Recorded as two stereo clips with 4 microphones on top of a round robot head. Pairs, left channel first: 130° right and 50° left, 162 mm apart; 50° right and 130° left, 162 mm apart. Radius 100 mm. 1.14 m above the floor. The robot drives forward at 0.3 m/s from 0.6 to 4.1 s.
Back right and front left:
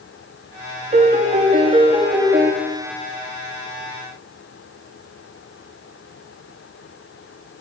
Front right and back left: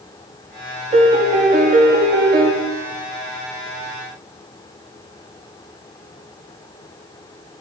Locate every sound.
0.9 s a piano: 85° left, 0.8 m; by 2.5 s 125° left, 0.9 m